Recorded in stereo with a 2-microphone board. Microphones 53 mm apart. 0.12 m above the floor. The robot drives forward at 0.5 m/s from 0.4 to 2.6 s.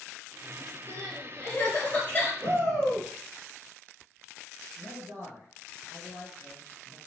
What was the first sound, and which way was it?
Crying, 30° left (ahead or behind).